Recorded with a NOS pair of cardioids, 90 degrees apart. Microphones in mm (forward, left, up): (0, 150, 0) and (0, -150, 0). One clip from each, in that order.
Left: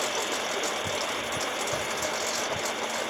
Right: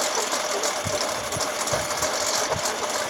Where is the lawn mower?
55° right.